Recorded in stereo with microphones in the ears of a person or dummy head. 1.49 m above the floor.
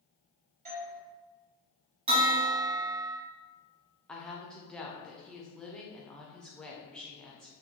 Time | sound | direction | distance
0.7 | a doorbell | 40° right (ahead or behind) | 1.3 m
2.1 | a bell | 30° right (ahead or behind) | 1.0 m
4.1 | a woman speaking | 5° left (ahead or behind) | 0.5 m